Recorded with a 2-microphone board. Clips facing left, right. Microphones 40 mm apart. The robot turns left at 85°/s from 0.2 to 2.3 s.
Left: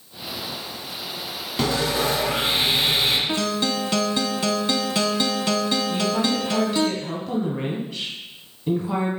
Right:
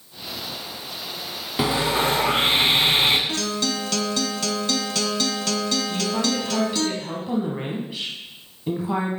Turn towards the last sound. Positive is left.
turn(degrees=-10)  # may be behind; listen again after turning